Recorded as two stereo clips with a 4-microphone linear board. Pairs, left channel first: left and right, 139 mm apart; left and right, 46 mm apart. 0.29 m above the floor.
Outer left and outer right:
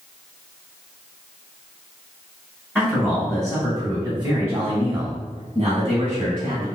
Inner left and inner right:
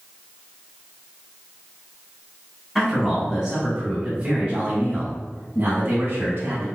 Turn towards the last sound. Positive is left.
turn(degrees=-45)  # may be behind; listen again after turning